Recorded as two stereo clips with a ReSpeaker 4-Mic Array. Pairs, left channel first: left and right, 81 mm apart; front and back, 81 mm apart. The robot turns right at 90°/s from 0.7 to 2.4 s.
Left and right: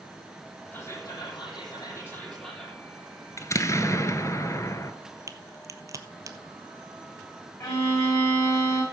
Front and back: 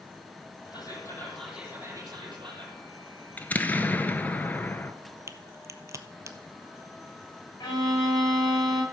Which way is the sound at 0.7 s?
20° left.